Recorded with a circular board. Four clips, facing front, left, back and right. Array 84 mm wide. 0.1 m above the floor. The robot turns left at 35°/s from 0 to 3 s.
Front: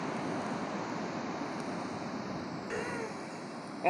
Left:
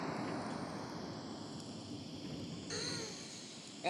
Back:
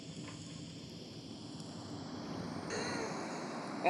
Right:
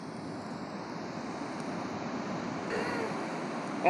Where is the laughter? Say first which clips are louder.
Right 14 dB, front 2 dB; 65° right; by 3.9 s 75° right.